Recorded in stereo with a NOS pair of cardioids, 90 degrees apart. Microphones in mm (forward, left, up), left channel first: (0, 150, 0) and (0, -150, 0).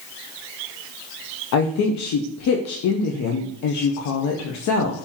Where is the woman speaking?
60° left, 0.6 m.